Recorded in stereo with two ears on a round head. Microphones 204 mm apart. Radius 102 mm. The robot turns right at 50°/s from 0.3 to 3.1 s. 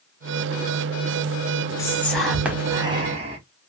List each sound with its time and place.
1.8 s whispering: 155° left, 0.8 m; by 3.4 s 135° right, 0.8 m